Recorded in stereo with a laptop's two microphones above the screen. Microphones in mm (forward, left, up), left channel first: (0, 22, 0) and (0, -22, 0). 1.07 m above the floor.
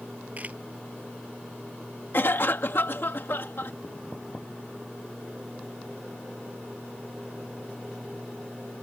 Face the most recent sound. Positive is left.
turn(degrees=60)  # may be behind; listen again after turning